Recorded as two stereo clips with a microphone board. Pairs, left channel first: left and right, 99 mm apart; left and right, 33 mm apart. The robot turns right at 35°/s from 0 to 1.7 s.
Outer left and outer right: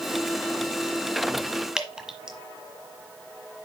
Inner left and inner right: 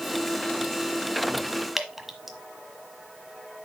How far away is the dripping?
About 1.2 m.